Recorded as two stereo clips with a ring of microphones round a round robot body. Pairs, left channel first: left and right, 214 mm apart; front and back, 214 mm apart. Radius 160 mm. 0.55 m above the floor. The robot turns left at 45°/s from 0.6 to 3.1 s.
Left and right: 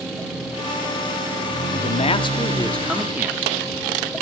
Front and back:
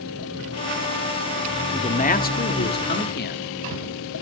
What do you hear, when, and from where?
1.7 s a man speaking: 50° left, 1.3 m; by 3.4 s 10° right, 1.3 m